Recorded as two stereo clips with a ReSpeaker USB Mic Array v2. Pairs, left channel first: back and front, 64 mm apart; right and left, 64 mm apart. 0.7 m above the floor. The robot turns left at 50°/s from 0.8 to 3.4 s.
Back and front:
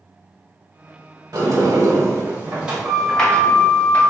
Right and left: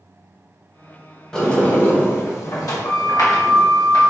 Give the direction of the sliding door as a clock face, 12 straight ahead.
12 o'clock.